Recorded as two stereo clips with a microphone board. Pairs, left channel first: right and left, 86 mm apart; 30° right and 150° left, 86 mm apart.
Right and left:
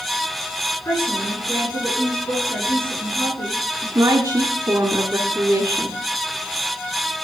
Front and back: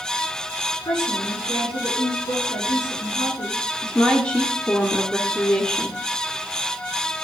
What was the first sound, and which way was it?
A woman speaking, 45° right.